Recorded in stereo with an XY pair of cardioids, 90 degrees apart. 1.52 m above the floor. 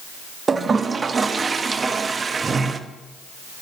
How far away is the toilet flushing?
About 0.7 m.